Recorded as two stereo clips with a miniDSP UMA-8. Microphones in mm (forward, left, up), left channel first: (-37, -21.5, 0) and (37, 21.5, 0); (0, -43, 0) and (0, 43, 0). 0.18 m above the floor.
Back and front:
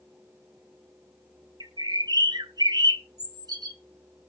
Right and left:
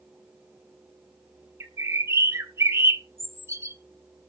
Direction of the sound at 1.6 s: 40° left.